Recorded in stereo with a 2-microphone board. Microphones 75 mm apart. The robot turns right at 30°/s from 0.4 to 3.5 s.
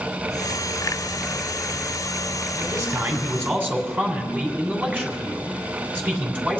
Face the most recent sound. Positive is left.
turn(degrees=-25)  # may be behind; listen again after turning